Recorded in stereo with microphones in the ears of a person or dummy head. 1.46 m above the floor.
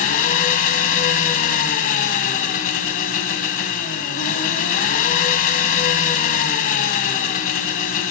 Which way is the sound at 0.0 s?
45° left (ahead or behind).